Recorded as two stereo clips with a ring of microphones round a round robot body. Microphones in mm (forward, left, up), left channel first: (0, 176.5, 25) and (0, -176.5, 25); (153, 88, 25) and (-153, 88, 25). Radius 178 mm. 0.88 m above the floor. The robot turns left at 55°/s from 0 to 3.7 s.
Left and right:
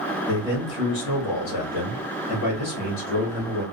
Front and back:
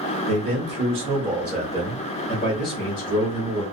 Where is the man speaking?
160° left, 1.3 m; by 3.6 s 25° right, 1.3 m.